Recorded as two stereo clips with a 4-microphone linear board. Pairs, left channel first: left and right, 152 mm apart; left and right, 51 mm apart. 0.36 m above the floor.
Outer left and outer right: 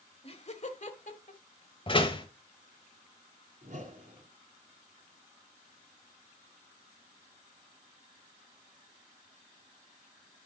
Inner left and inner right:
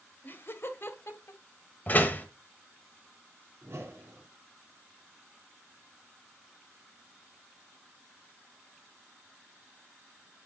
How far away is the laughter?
About 1.2 m.